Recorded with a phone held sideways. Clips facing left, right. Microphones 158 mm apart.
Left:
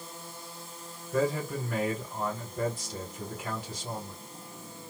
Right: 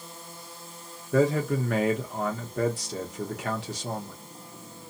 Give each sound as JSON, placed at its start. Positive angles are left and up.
{"t": 1.1, "sound": "a man speaking", "side_deg": -80, "distance_m": 1.0}